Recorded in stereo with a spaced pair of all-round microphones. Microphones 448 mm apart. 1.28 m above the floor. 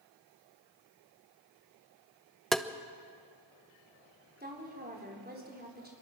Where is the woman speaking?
20° right (ahead or behind), 5 m.